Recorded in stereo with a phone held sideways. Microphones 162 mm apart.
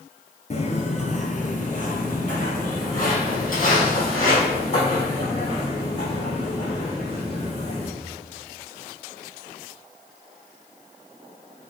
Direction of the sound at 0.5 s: 40° left (ahead or behind).